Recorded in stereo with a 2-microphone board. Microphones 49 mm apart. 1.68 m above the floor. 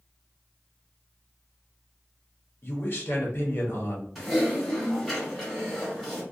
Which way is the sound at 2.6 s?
45° left (ahead or behind).